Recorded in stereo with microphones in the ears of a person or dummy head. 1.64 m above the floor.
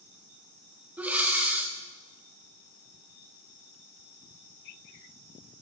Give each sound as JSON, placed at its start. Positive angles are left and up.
{"t": 1.0, "sound": "breathing", "side_deg": -10, "distance_m": 0.8}